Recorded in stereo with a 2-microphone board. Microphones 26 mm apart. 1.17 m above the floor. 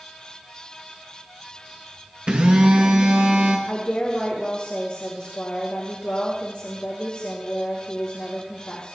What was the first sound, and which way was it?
A phone buzzing, 45° right (ahead or behind).